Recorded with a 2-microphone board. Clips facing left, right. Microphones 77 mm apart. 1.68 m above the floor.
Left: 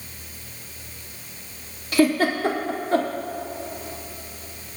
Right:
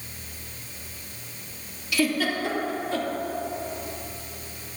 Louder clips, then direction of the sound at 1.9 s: Left 6 dB; 45° left (ahead or behind).